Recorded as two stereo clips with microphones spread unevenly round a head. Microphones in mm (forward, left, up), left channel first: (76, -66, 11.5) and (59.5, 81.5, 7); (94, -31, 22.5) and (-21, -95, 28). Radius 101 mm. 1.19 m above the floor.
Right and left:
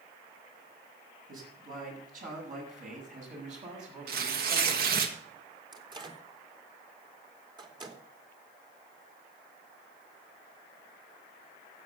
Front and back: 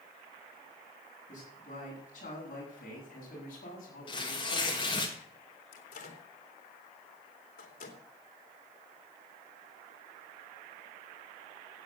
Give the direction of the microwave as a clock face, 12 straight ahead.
11 o'clock.